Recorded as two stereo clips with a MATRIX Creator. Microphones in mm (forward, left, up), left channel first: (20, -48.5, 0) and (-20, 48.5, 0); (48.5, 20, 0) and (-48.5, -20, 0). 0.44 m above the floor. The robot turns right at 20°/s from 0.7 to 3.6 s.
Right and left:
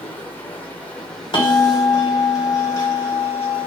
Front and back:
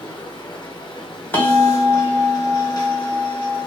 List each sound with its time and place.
0.0 s running water: straight ahead, 0.7 m; by 3.7 s 60° left, 0.7 m
1.3 s a bell: 45° right, 0.9 m; by 3.7 s straight ahead, 0.9 m